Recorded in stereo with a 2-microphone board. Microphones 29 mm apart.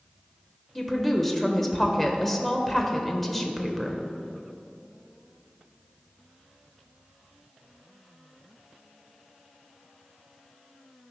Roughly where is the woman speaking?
Centre.